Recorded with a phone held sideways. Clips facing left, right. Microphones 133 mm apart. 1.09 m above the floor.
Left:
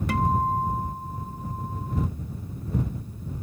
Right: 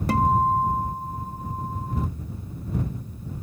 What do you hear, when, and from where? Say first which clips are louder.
0.1 s a guitar: right 4 dB; 35° right (ahead or behind)